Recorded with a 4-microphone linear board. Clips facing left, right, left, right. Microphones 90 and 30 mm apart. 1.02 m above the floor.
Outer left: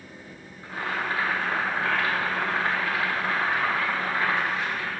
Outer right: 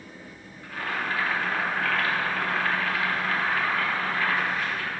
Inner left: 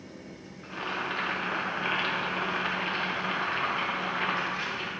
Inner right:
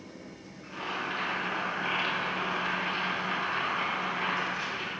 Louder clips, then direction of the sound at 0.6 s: Outer left 1 dB, inner left 2 dB; 25° left (ahead or behind).